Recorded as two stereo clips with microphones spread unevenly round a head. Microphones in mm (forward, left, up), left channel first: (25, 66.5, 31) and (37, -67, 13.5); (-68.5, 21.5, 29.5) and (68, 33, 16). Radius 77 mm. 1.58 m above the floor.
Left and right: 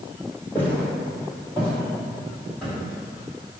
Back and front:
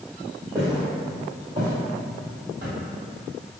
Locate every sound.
0.6 s footsteps: 50° left, 1.7 m; by 2.7 s 10° left, 2.5 m